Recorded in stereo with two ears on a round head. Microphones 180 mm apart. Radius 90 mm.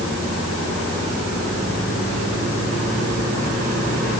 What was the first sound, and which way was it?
Only background noise.